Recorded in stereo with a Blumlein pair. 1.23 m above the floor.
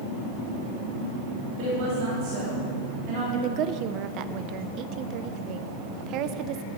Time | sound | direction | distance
1.6 | a woman speaking | 40° right | 3 m
3.3 | a woman speaking | 35° right | 0.5 m